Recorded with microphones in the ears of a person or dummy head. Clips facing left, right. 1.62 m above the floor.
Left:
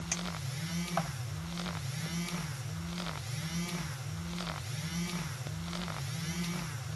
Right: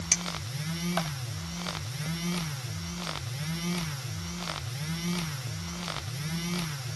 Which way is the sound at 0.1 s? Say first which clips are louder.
Right 2 dB; 40° right (ahead or behind).